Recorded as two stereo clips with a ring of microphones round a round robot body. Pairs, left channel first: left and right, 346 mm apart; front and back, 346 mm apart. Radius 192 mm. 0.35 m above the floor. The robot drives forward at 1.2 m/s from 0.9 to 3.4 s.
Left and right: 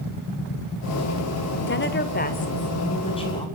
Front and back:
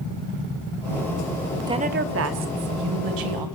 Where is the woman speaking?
110° left, 1.1 m; by 3.5 s 165° left, 2.5 m.